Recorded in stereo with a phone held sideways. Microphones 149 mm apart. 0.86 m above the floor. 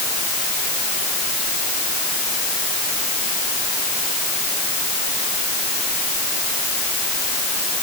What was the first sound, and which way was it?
Only background noise.